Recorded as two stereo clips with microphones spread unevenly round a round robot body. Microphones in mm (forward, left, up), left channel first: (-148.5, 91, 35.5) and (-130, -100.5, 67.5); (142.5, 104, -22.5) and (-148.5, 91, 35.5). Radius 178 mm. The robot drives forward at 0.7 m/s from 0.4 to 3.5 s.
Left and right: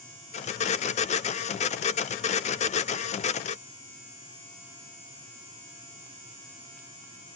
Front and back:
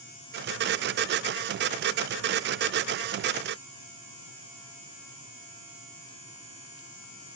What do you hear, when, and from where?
Only background noise.